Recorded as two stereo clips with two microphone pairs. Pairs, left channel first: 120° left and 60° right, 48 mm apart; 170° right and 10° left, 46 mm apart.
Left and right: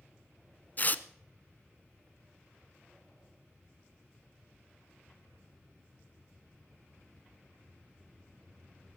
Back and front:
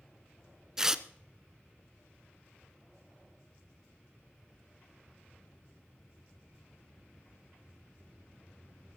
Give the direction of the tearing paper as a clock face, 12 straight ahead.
9 o'clock.